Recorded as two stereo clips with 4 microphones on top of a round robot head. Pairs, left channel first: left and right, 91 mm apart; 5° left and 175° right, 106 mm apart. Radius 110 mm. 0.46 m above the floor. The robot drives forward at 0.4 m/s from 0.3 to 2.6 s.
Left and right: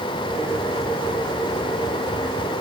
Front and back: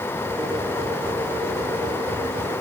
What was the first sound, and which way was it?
Only background noise.